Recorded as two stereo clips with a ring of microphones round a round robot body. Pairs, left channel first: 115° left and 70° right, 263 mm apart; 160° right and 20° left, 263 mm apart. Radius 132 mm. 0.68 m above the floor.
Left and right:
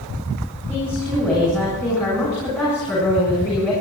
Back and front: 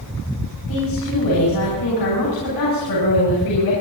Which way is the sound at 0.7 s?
165° right.